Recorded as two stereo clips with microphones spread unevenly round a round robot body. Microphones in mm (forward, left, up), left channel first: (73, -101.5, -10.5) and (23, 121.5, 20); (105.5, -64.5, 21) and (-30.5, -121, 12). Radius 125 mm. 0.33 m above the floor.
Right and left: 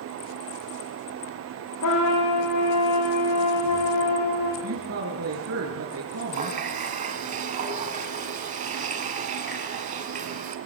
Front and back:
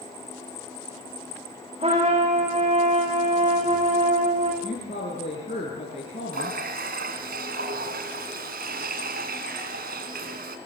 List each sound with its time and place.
1.8 s a trumpet: 110° right, 8 m
4.6 s a woman speaking: 85° left, 4 m
6.3 s a running tap: 165° left, 1.9 m